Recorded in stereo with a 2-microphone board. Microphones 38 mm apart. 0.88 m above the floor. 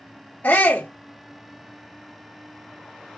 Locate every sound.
0.4 s a shout: 45° left (ahead or behind), 1.4 m